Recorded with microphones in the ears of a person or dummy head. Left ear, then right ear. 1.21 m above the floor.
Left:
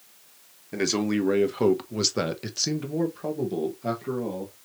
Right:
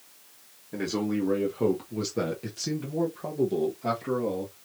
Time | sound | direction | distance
0.7 | a man speaking | 85° left | 1.4 m